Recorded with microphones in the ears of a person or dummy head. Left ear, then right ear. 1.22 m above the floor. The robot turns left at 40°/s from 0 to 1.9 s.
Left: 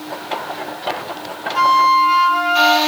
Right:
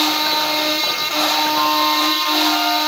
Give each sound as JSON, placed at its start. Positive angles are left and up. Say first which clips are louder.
{"t": 1.6, "sound": "a flute", "louder": "left 4 dB", "side_deg": 75, "distance_m": 0.9}